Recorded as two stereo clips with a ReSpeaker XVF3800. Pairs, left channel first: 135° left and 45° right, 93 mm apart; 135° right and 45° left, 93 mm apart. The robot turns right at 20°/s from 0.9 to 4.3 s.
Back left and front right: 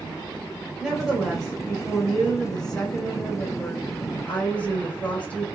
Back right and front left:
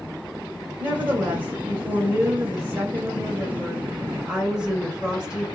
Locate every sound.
0.8 s a woman speaking: 35° left, 1.1 m; by 5.5 s 105° left, 1.1 m